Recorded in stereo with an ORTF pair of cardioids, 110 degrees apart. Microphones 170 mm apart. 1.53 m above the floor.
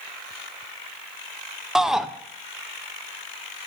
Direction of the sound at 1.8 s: 5° right.